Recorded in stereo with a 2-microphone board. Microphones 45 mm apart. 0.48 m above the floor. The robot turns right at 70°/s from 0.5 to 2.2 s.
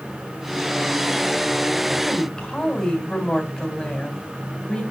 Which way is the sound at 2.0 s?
10° left (ahead or behind).